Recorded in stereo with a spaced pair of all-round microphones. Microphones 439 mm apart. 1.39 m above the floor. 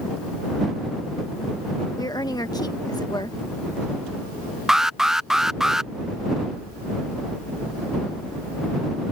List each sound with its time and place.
2.0 s a woman speaking: 10° left (ahead or behind)
4.7 s an alarm: centre (ahead or behind)